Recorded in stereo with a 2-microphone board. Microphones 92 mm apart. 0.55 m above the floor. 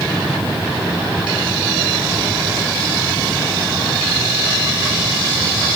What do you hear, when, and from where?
Only background noise.